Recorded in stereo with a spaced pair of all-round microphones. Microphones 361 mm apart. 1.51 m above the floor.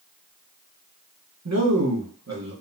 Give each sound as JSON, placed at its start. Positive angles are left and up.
{"t": 1.4, "sound": "a man speaking", "side_deg": -45, "distance_m": 1.0}